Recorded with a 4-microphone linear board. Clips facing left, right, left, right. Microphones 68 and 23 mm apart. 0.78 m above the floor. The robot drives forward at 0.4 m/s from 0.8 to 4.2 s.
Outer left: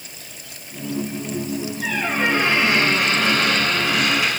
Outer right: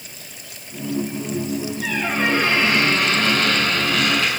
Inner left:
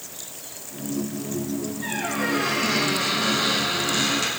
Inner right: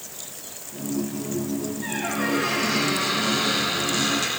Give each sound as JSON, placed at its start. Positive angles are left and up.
{"t": 1.8, "sound": "a squeak", "side_deg": 15, "distance_m": 5.5}